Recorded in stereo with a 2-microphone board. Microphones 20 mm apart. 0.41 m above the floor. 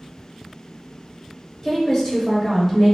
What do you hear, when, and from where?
1.6 s a woman speaking: 25° left (ahead or behind), 0.9 m